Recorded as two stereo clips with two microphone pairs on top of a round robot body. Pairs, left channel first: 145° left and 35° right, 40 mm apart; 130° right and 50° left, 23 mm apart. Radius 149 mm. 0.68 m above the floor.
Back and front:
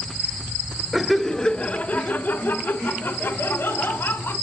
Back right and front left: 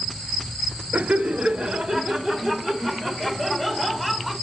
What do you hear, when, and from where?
0.9 s laughter: 55° left, 0.7 m; by 4.3 s 130° left, 2.5 m